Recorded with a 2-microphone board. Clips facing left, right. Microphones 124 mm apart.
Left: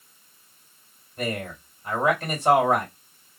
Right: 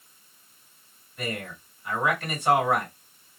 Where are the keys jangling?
No keys jangling in this recording.